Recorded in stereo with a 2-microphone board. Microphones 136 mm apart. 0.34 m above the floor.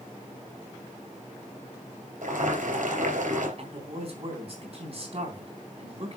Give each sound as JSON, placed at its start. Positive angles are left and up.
{"t": 2.2, "sound": "boiling", "side_deg": -70, "distance_m": 3.5}
{"t": 3.6, "sound": "a man speaking", "side_deg": -45, "distance_m": 3.5}